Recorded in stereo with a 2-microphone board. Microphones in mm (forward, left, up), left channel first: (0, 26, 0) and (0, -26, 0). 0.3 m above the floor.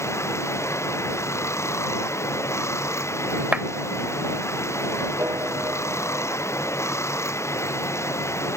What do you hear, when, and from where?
0.0 s running water: 65° left (ahead or behind)
3.5 s a clap: 25° right (ahead or behind)
5.2 s a piano: 55° right (ahead or behind)